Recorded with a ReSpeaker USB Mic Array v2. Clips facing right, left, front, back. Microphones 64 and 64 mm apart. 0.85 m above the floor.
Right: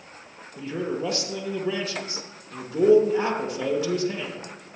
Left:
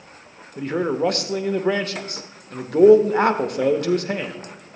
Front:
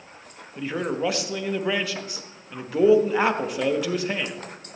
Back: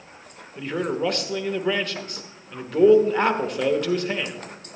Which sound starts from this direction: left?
A man speaking, at 0.6 s.